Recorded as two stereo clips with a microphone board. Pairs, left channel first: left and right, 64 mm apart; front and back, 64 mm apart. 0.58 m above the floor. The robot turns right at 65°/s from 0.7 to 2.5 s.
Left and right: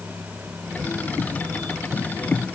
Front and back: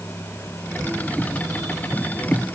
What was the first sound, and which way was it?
Only background noise.